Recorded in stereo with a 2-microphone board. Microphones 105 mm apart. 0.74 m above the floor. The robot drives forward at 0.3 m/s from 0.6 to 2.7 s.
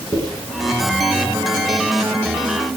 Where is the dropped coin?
25° right (ahead or behind), 3.5 m.